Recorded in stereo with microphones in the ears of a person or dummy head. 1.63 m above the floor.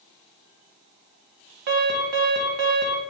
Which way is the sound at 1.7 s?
55° right (ahead or behind).